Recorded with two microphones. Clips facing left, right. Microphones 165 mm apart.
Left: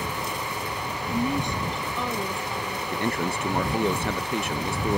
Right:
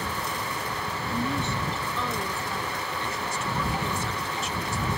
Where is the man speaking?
60° left (ahead or behind).